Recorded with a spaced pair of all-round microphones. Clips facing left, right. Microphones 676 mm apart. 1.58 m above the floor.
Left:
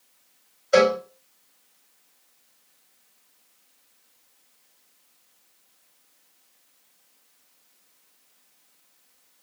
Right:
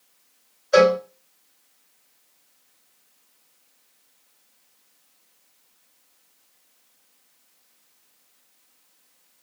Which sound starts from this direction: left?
A cowbell, at 0.7 s.